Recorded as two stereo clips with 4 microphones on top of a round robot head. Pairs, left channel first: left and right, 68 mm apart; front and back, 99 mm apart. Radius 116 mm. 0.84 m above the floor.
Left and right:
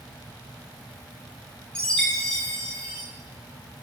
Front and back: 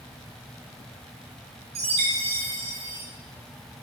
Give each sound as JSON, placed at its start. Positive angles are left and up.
{"t": 1.8, "sound": "a chime", "azimuth_deg": 165, "distance_m": 1.0}